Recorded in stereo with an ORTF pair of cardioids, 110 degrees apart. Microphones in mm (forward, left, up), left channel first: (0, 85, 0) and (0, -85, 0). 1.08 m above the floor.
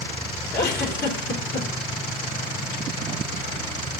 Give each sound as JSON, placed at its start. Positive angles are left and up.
{"t": 0.5, "sound": "a giggle", "azimuth_deg": 65, "distance_m": 3.5}